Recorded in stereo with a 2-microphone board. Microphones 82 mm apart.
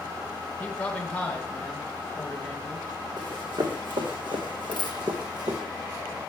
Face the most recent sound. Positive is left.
turn(degrees=15)  # may be behind; listen again after turning